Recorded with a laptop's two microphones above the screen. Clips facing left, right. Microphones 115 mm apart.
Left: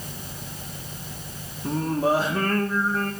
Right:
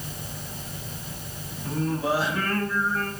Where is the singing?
40° left (ahead or behind), 1.9 m.